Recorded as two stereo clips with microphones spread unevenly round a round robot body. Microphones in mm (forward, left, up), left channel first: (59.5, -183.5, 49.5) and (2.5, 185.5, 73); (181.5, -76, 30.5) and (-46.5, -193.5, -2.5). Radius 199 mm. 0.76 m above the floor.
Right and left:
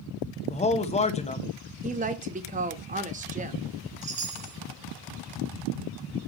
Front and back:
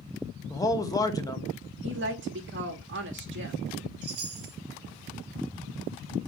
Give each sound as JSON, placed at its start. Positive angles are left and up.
{"t": 0.5, "sound": "a man speaking", "azimuth_deg": -50, "distance_m": 1.0}
{"t": 1.8, "sound": "a woman speaking", "azimuth_deg": 170, "distance_m": 1.0}
{"t": 4.0, "sound": "a chime", "azimuth_deg": 170, "distance_m": 0.7}